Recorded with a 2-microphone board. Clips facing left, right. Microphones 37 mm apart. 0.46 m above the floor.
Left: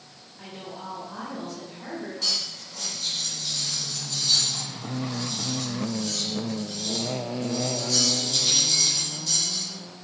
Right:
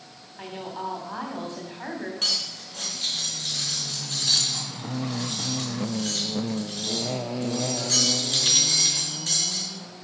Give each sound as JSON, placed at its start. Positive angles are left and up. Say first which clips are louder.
{"t": 0.4, "sound": "a woman speaking", "louder": "right 5 dB", "side_deg": -40, "distance_m": 3.0}
{"t": 2.2, "sound": "cutlery clinking", "louder": "right 2 dB", "side_deg": -55, "distance_m": 4.0}